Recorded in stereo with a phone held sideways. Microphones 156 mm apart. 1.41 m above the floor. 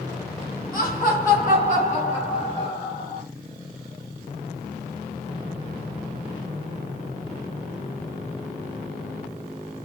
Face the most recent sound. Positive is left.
turn(degrees=25)  # may be behind; listen again after turning